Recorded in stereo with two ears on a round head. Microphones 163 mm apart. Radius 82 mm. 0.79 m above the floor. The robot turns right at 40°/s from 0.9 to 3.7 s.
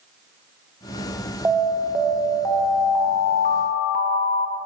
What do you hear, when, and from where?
1.4 s an alarm: 15° right, 0.6 m; by 4.6 s 75° left, 0.6 m